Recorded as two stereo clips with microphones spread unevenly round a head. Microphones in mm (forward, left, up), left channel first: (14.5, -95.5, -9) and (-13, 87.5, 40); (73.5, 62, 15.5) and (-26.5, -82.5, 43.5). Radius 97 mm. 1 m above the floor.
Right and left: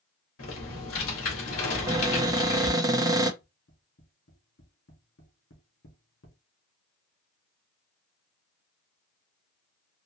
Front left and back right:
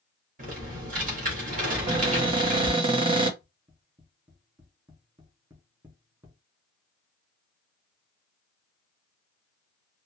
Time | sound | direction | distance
0.4 | typing on a keyboard | 80° right | 2 m
1.7 | a cupboard door | 175° left | 1.0 m
3.4 | tapping | 60° right | 1.9 m